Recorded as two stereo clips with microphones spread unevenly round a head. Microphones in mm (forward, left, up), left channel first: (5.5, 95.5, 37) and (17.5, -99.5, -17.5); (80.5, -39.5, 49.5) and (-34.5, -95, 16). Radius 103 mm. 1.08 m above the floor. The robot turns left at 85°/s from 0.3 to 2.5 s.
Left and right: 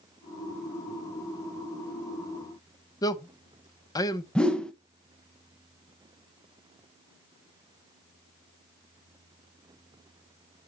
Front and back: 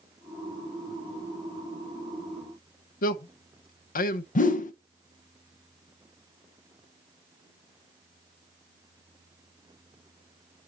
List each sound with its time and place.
3.0 s a man speaking: 15° left, 0.8 m
4.3 s a whoosh: 5° left, 0.8 m